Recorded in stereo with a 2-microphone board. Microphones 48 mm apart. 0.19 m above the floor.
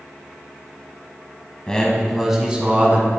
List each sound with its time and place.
1.7 s a man speaking: 15° left (ahead or behind), 1.1 m; by 3.1 s 35° right (ahead or behind), 1.5 m